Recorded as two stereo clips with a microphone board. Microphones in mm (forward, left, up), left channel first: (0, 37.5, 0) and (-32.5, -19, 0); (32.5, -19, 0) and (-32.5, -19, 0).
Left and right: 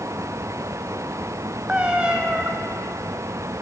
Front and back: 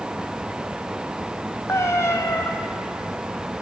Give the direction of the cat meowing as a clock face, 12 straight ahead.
2 o'clock.